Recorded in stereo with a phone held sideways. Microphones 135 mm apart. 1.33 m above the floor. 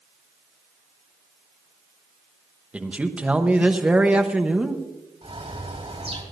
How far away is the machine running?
No machine running in this recording.